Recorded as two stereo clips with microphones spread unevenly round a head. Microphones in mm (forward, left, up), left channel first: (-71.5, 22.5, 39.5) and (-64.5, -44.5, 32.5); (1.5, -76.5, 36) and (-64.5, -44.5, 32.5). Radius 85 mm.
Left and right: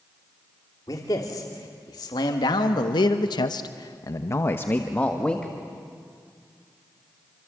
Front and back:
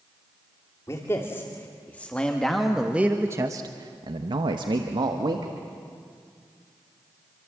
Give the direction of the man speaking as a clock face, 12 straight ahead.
11 o'clock.